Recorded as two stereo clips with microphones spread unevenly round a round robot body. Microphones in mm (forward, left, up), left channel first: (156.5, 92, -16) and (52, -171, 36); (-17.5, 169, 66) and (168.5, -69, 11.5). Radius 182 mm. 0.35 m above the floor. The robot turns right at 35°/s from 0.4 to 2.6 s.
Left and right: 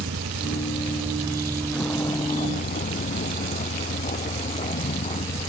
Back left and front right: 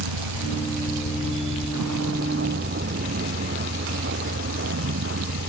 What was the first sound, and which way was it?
A vehicle, 65° right.